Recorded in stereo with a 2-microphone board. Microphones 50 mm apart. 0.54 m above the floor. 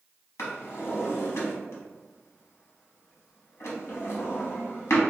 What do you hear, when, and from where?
0.4 s a drawer: 65° left (ahead or behind), 0.9 m